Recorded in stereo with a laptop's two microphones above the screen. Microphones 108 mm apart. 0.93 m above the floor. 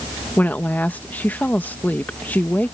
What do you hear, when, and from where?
0.4 s a woman speaking: 15° left (ahead or behind)